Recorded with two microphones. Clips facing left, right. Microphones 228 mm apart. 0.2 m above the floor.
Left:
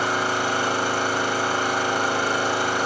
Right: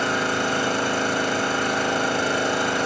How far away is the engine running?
About 1.4 m.